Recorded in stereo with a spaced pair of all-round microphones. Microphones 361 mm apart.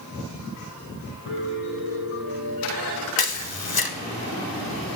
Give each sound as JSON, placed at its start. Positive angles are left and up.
{"t": 1.3, "sound": "a piano", "side_deg": 75, "distance_m": 3.0}
{"t": 3.2, "sound": "a camera shutter", "side_deg": 85, "distance_m": 0.9}